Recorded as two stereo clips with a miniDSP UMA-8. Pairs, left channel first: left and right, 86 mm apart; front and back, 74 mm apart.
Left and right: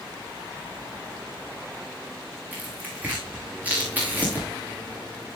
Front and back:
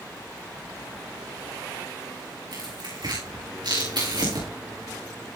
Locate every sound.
2.5 s tearing paper: 160° right, 8.5 m